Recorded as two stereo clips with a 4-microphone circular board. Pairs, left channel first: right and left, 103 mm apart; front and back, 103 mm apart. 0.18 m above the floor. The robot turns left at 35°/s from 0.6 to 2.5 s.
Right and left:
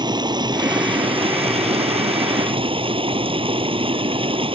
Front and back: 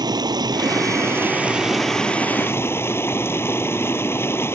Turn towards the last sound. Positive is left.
turn(degrees=65)